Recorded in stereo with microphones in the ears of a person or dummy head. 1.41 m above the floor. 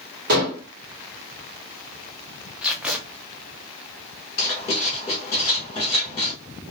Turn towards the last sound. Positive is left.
turn(degrees=15)  # may be behind; listen again after turning